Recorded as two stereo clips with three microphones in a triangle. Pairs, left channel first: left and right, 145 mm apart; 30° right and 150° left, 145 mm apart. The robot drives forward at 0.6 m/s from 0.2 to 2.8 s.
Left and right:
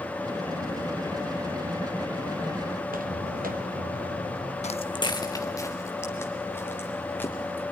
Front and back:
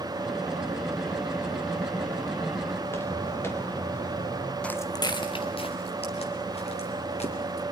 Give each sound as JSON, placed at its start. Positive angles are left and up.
{"t": 2.8, "sound": "footsteps", "azimuth_deg": -105, "distance_m": 2.5}
{"t": 4.6, "sound": "footsteps", "azimuth_deg": 50, "distance_m": 0.6}